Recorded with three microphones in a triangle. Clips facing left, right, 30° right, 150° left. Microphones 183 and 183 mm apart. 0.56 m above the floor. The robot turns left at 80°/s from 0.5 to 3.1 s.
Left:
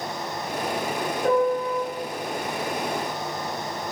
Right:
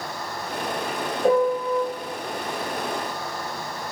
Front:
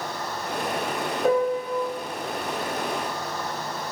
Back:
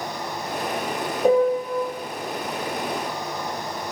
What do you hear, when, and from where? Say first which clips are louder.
1.2 s a piano: right 2 dB, back 4 dB; 145° right, 0.6 m; by 1.9 s 170° left, 0.6 m